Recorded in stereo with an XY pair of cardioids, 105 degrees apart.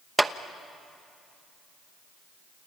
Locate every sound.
0.2 s a clap: 5° right, 0.9 m